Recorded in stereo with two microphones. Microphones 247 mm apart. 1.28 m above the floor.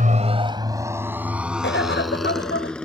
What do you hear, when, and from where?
0.0 s a motorcycle: 35° right (ahead or behind); by 2.9 s 5° left (ahead or behind)
1.6 s a cough: 50° left (ahead or behind)